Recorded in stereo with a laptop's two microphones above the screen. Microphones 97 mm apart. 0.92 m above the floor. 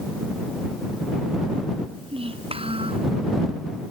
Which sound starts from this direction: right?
A child speaking, at 1.9 s.